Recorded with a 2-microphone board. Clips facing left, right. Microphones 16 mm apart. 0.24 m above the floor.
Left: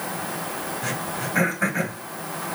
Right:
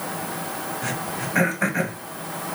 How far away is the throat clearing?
About 1.5 m.